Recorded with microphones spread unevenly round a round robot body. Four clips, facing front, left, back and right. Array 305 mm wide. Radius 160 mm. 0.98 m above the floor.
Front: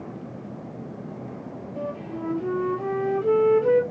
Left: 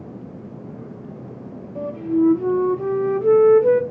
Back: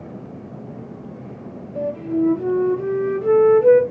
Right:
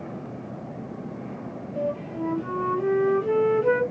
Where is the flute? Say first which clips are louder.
Left 9 dB, back 11 dB; 135° left, 1.6 m.